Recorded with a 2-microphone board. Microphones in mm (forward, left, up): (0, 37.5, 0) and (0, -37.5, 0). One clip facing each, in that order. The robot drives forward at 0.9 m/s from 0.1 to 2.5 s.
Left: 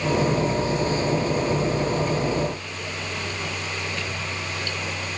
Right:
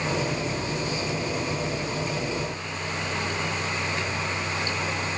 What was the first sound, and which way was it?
Only background noise.